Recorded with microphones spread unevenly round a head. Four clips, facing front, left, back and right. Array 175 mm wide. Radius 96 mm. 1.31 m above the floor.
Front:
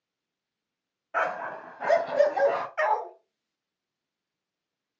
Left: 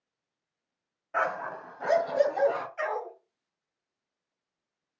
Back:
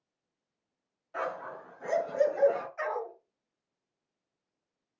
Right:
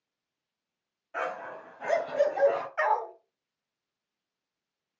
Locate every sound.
1.1 s a dog barking: 20° left, 2 m; by 2.7 s 5° right, 2.5 m
2.8 s a dog barking: 40° right, 3 m